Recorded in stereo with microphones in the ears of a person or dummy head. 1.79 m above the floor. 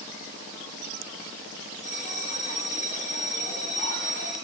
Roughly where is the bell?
Left.